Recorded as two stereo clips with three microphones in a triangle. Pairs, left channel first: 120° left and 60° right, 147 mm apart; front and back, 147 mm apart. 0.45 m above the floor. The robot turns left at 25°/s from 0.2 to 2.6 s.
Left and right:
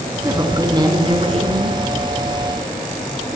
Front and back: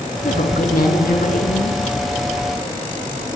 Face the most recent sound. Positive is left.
turn(degrees=-45)